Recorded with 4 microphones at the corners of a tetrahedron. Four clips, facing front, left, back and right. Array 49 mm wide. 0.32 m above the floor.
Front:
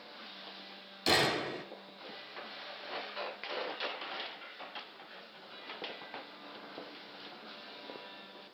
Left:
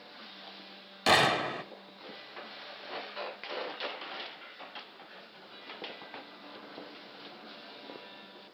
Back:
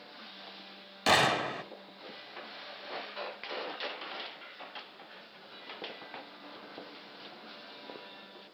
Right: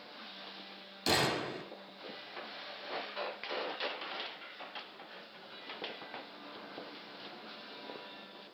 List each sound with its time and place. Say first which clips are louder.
1.1 s a gunshot: left 7 dB, back 4 dB; 130° left, 1.9 m